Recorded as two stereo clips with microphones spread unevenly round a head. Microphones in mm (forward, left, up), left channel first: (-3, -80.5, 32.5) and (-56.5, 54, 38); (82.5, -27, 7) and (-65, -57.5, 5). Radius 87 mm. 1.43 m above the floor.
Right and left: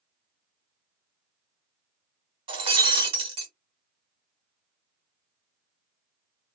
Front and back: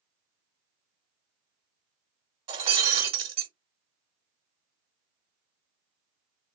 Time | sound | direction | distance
2.5 | breaking glass | 150° left | 1.5 m